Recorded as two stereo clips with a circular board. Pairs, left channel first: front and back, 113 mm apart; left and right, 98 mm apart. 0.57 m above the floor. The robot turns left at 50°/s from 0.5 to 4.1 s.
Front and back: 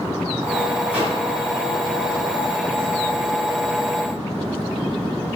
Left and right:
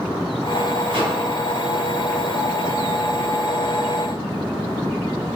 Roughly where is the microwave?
Right.